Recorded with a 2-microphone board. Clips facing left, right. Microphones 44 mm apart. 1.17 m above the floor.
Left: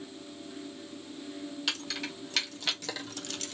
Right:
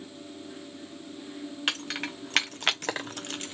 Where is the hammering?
I don't hear hammering.